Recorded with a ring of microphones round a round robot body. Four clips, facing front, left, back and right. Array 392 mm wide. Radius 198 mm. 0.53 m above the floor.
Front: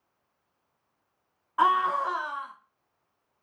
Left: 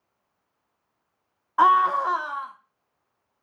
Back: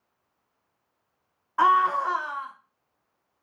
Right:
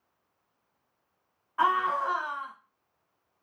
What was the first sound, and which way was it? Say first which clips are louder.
A scream: left 7 dB, back 3 dB; 95° left.